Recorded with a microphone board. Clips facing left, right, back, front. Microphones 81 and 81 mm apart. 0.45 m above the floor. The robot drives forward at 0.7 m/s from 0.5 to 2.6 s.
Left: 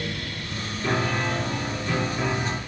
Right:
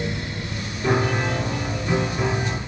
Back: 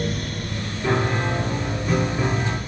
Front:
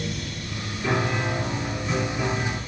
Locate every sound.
0.8 s a piano: 120° right, 0.7 m; by 2.6 s 170° right, 1.6 m